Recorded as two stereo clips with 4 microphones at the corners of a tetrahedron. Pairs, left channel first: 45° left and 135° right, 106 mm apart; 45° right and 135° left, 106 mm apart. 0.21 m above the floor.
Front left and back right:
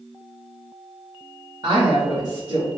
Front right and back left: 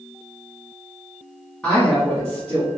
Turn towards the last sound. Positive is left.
turn(degrees=-125)